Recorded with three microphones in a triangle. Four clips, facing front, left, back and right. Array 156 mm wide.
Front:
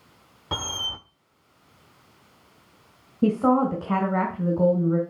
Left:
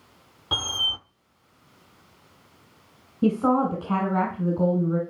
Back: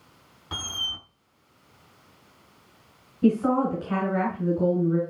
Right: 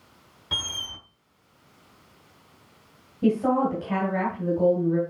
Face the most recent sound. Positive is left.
turn(degrees=20)